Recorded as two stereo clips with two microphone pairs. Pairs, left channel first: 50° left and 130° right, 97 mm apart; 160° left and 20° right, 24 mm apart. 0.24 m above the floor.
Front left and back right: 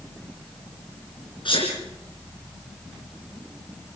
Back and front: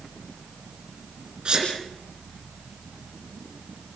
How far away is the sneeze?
About 3.5 m.